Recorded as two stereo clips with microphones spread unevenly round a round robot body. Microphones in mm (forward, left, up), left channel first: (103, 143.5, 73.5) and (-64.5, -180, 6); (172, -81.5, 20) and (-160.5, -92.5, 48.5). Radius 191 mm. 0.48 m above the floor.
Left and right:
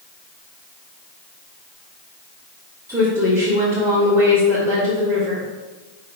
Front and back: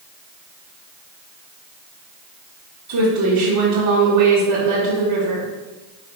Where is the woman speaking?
175° left, 1.7 m.